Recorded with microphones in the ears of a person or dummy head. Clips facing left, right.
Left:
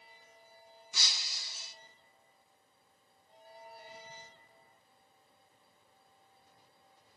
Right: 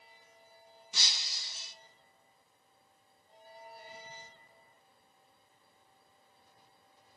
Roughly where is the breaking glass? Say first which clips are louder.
Right 1 dB; right.